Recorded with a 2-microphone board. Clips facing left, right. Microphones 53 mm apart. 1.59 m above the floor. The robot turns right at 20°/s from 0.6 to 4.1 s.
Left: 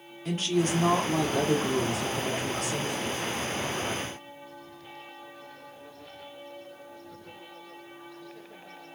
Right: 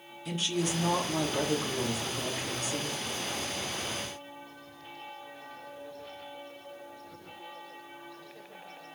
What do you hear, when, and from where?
0.2 s a woman speaking: 40° left, 1.4 m; by 3.0 s 90° left, 1.4 m